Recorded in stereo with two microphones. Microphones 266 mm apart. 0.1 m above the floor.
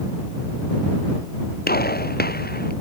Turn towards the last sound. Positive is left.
turn(degrees=35)  # may be behind; listen again after turning